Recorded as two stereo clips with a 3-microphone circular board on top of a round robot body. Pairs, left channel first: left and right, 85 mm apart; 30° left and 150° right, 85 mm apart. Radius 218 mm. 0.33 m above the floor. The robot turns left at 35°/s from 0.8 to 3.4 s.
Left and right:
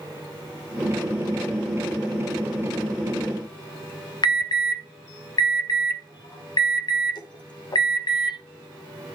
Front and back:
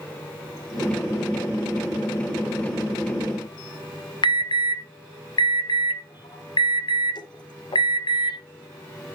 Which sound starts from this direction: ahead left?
An alarm, at 4.2 s.